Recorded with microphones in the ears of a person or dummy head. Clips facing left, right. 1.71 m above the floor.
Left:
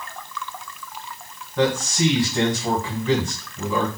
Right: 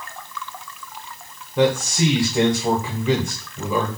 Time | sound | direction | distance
1.6 | a man speaking | 10° right (ahead or behind) | 0.6 m